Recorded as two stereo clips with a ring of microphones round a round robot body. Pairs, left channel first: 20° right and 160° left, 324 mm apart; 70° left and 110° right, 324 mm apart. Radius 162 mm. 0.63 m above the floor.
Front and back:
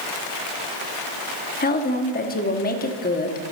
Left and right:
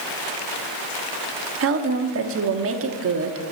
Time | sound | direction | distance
1.6 | a woman speaking | 80° right | 1.1 m